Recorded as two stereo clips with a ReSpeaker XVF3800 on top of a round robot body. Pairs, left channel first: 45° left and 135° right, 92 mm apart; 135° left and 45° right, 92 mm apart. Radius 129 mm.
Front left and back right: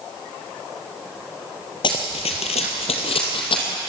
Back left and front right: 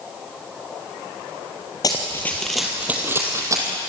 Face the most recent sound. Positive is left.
turn(degrees=10)